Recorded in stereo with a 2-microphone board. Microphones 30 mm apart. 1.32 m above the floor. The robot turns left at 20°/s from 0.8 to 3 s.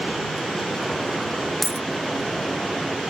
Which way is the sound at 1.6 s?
Centre (ahead or behind).